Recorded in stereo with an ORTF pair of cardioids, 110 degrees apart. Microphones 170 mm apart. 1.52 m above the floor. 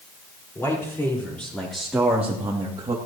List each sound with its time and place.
0.6 s a man speaking: 15° left, 5 m; by 3.0 s 30° right, 2.5 m